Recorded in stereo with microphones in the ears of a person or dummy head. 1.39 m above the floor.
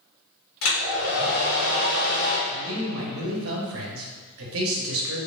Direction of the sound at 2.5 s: 70° right (ahead or behind).